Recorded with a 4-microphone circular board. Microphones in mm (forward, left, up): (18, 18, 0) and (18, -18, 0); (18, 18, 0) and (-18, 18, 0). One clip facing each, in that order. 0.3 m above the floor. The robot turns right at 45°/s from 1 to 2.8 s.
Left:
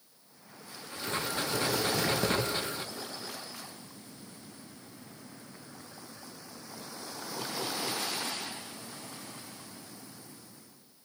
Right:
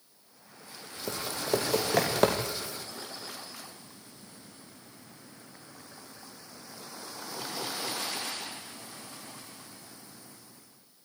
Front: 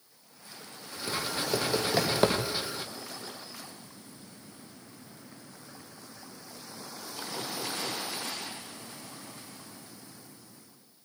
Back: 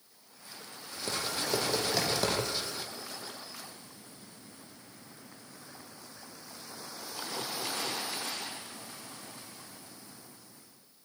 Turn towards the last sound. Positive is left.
turn(degrees=-30)